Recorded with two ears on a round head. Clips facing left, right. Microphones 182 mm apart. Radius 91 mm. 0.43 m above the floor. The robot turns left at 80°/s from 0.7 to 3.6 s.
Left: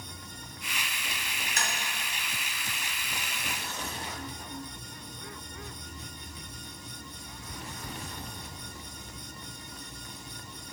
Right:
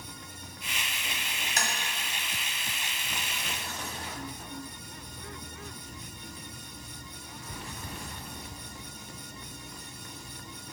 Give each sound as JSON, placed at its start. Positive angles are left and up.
{"t": 1.6, "sound": "tapping", "side_deg": -35, "distance_m": 1.6}